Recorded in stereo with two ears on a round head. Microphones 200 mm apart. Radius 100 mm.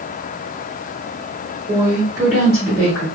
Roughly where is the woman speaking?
Centre.